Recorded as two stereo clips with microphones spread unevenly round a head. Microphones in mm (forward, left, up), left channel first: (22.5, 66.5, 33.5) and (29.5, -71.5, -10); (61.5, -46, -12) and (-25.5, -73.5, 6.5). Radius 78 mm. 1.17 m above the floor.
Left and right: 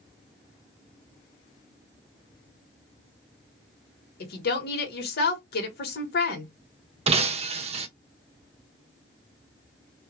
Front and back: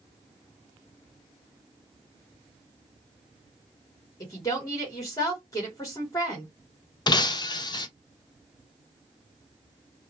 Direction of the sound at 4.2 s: 70° left.